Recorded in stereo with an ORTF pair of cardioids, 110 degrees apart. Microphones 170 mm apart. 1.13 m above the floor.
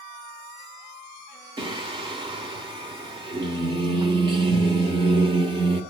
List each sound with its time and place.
1.6 s singing: 30° right, 2 m